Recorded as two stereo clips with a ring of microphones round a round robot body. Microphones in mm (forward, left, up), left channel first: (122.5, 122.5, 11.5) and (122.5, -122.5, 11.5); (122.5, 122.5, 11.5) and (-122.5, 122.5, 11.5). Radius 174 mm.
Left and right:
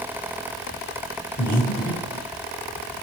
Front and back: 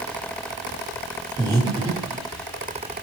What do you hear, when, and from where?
1.4 s breathing: 120° left, 1.1 m